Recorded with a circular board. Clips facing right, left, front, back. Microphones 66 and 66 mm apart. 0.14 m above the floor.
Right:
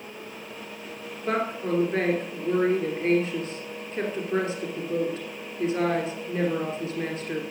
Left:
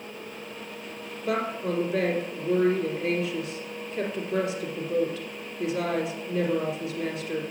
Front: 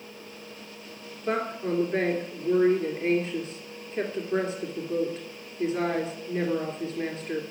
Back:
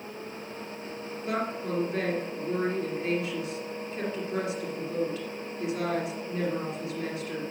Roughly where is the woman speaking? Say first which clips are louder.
Right 1 dB, front 3 dB; ahead right.